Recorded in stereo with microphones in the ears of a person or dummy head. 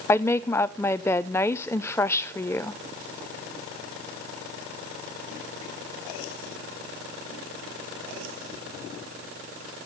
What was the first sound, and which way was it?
A woman speaking, 20° left (ahead or behind).